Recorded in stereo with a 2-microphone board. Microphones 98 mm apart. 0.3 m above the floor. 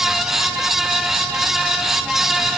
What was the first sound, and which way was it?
Only background noise.